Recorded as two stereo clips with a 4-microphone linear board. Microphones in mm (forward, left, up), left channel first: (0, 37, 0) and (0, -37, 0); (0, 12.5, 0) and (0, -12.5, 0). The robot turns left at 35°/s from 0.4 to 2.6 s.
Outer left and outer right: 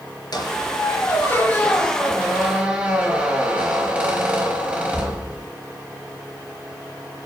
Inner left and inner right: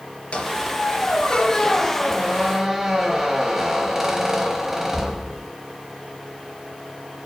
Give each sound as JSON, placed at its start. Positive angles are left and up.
{"t": 0.3, "sound": "a squeak", "azimuth_deg": 60, "distance_m": 4.0}